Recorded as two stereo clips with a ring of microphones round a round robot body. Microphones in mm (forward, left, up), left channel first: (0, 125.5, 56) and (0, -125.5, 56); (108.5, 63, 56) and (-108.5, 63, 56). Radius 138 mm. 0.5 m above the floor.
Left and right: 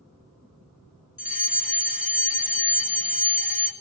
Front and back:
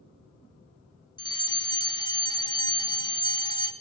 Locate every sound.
1.2 s a fire alarm: 55° left, 2.5 m